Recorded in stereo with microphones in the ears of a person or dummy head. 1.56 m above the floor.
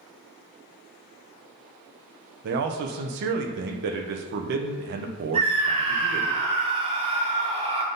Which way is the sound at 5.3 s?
25° right (ahead or behind).